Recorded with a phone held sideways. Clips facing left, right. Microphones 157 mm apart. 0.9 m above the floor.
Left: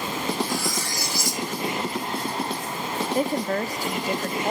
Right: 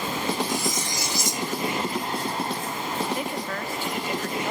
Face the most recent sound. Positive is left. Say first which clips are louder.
# left 6 dB
turn(degrees=40)  # may be behind; listen again after turning